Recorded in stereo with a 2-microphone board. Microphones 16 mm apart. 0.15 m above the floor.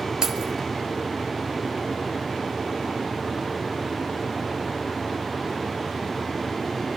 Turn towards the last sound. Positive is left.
turn(degrees=-55)  # may be behind; listen again after turning